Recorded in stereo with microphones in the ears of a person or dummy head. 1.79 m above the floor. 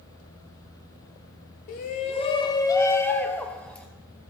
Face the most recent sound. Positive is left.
turn(degrees=5)  # may be behind; listen again after turning